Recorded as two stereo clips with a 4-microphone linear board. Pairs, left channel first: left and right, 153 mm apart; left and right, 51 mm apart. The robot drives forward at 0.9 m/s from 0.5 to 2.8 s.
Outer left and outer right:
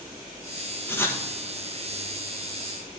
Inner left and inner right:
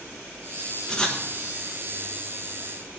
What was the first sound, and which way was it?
Writing, 15° left (ahead or behind).